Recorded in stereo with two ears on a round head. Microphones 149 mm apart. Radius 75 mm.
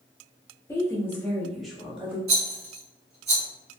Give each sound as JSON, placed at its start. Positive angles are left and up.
{"t": 0.7, "sound": "a woman speaking", "side_deg": 15, "distance_m": 0.8}
{"t": 2.3, "sound": "a rattle", "side_deg": -40, "distance_m": 1.7}